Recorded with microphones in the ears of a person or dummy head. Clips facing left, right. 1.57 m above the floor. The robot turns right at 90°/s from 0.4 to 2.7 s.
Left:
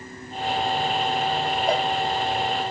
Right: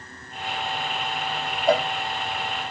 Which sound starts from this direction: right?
A cowbell, at 1.7 s.